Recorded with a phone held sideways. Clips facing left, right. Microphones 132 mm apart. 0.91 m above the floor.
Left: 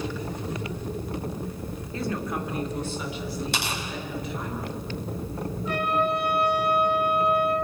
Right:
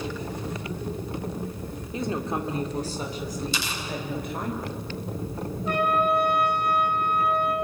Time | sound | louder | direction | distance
1.9 | a woman speaking | right 2 dB | 20° right (ahead or behind) | 3 m
3.5 | tearing paper | left 2 dB | 70° left (ahead or behind) | 5.5 m
5.7 | a trumpet | right 2 dB | 55° right (ahead or behind) | 4 m